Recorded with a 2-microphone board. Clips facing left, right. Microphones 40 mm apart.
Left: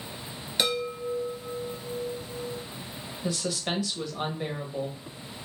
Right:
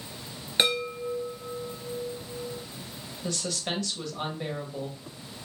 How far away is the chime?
About 1.2 m.